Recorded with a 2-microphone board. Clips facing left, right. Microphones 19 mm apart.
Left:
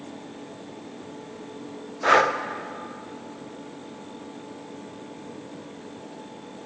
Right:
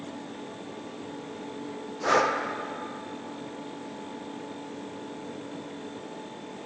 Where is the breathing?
35° left (ahead or behind), 0.5 m.